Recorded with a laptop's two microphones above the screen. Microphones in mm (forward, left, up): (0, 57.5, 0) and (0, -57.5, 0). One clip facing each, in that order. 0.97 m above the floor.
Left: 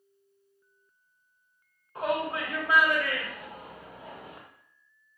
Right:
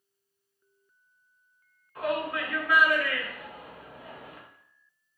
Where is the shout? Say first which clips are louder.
Even; 25° left (ahead or behind), 1.0 m.